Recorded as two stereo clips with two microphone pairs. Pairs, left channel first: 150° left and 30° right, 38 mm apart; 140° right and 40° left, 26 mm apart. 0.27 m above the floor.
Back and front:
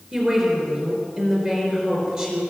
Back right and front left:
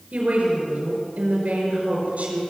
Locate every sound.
0.1 s a woman speaking: 35° left, 5 m